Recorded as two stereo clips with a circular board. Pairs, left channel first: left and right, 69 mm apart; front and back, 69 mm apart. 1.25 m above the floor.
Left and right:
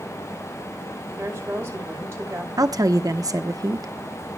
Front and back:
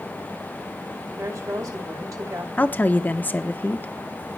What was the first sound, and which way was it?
A woman speaking, 145° right.